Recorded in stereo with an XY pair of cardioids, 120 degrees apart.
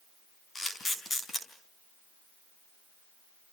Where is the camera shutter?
25° left, 5 m.